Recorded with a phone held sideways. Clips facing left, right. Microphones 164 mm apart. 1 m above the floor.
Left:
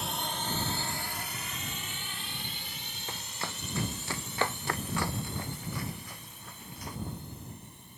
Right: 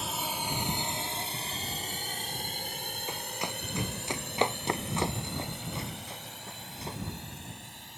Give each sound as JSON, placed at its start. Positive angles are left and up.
{"t": 0.0, "sound": "a drone", "side_deg": 0}
{"t": 3.1, "sound": "running footsteps", "side_deg": -15}